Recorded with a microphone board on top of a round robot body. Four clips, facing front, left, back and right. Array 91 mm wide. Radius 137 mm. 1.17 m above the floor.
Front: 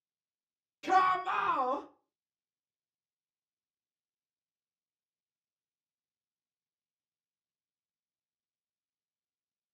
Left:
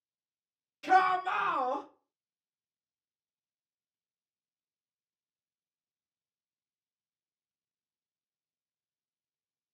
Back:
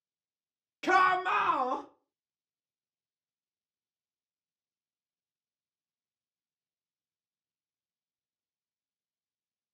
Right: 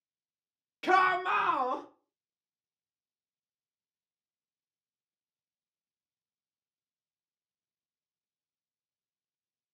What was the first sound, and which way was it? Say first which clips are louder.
A shout: even, back 2 dB; 140° right.